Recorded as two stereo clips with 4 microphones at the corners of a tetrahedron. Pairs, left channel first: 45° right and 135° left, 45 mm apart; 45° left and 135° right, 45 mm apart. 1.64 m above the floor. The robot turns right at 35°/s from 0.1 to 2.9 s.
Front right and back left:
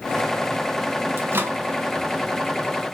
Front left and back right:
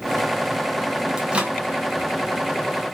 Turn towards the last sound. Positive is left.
turn(degrees=-145)